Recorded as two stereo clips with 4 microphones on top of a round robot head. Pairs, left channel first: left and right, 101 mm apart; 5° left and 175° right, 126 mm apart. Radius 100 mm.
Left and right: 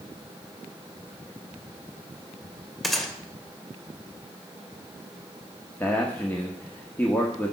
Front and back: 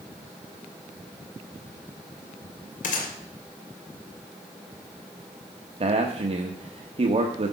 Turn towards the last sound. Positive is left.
turn(degrees=160)